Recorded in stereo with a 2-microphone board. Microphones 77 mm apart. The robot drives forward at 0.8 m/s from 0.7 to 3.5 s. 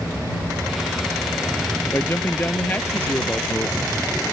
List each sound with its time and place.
1.9 s a man speaking: 25° left (ahead or behind); by 4.0 s 20° left (ahead or behind)